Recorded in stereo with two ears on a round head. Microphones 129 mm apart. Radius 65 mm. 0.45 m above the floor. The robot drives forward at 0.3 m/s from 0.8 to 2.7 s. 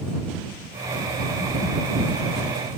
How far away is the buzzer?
No buzzer in this recording.